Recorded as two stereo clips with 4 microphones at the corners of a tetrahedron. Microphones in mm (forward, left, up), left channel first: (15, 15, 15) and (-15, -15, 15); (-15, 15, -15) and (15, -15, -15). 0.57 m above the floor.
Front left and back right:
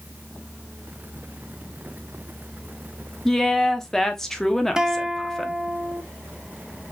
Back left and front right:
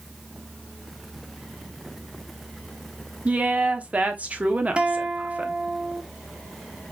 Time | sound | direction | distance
3.2 | a woman speaking | 30° right | 0.9 m
4.8 | a guitar | 80° right | 0.6 m